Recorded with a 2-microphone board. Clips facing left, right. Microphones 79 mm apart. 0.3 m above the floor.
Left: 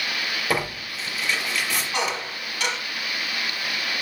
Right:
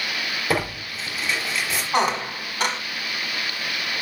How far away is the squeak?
About 1.2 m.